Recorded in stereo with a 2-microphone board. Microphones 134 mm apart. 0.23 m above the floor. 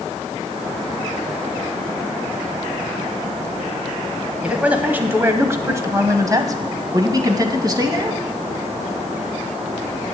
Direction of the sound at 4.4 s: 10° right (ahead or behind).